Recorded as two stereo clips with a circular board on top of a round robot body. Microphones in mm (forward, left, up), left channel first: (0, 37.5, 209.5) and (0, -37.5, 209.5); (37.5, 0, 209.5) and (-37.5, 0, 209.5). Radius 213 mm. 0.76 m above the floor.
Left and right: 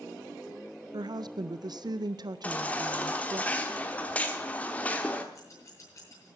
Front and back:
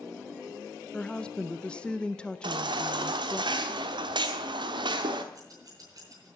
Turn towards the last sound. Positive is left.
turn(degrees=140)